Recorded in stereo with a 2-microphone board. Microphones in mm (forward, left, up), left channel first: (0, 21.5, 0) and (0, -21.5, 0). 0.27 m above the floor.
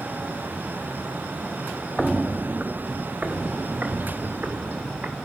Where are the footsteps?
5° left (ahead or behind), 0.5 m; by 5.2 s 40° right (ahead or behind), 4.5 m.